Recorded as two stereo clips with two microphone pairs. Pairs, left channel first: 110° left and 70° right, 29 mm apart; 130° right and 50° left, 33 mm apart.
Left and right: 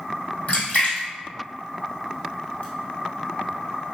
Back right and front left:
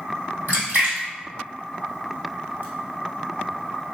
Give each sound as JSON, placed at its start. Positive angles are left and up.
{"t": 0.5, "sound": "a splash", "azimuth_deg": 70, "distance_m": 1.9}